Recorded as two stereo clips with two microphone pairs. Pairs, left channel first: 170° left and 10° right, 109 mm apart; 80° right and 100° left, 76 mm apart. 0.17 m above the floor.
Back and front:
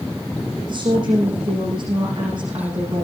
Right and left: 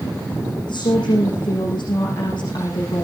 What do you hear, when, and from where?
0.7 s a woman speaking: 60° right, 8 m